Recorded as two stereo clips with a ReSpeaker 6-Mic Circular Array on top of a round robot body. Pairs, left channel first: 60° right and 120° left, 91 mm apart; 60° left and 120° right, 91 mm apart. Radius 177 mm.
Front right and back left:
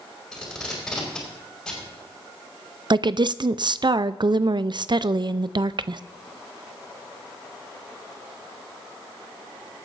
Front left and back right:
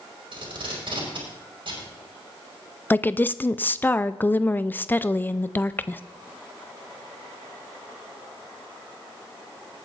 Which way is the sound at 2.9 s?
125° left.